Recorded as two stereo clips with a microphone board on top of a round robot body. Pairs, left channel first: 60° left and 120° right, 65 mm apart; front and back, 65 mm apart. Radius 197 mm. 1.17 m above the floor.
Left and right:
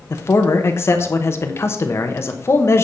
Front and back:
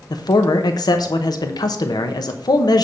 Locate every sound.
0.1 s a man speaking: 10° left, 1.0 m